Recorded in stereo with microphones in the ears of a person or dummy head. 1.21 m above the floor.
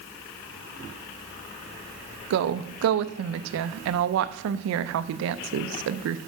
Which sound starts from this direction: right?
A woman speaking, at 2.3 s.